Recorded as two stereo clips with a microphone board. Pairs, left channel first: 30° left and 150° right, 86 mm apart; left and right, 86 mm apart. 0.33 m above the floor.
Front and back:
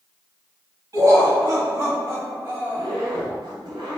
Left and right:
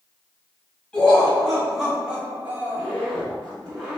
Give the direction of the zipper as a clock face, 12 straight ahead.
6 o'clock.